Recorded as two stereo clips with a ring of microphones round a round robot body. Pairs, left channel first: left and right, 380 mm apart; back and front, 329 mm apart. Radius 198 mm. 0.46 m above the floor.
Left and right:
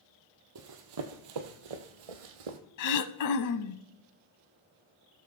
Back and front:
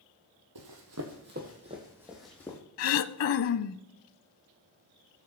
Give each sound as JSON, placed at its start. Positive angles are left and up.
{"t": 0.6, "sound": "running footsteps", "azimuth_deg": -40, "distance_m": 1.1}
{"t": 2.8, "sound": "throat clearing", "azimuth_deg": 135, "distance_m": 0.6}